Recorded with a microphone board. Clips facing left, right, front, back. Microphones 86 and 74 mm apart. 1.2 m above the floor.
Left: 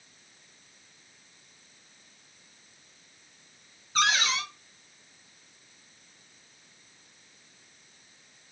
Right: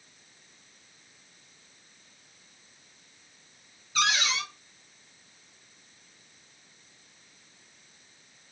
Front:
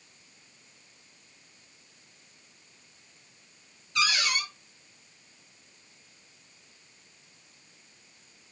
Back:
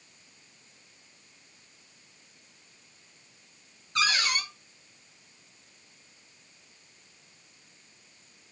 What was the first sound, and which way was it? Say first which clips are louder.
A cupboard door: left 2 dB, even; 135° left.